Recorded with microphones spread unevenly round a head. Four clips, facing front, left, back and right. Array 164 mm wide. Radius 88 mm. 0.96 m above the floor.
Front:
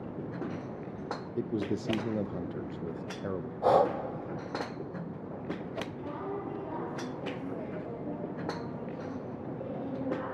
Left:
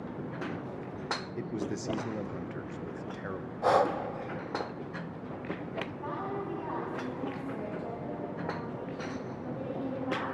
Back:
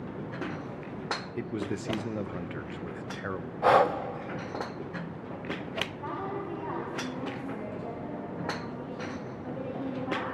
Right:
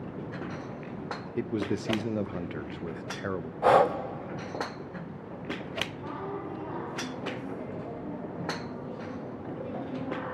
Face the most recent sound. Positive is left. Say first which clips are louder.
# left 1 dB, back 2 dB
turn(degrees=155)